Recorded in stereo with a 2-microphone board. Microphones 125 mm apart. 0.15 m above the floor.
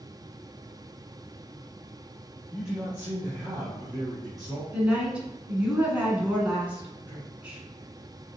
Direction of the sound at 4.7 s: 10° right (ahead or behind).